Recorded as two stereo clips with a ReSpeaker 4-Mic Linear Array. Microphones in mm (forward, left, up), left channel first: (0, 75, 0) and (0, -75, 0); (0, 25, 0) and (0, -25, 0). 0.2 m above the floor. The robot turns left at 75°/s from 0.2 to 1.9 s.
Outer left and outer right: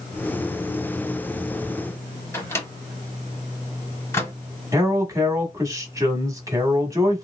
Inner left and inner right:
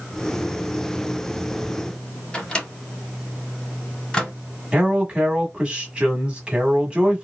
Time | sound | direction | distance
2.3 | a microwave | 15° left (ahead or behind) | 0.9 m
4.7 | a man speaking | 20° right (ahead or behind) | 1.1 m